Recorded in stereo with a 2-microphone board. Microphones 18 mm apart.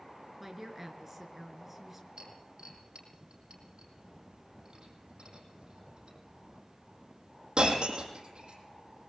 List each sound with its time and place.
0.4 s a woman speaking: 15° right (ahead or behind), 3.5 m
2.2 s breaking glass: 50° right (ahead or behind), 6.5 m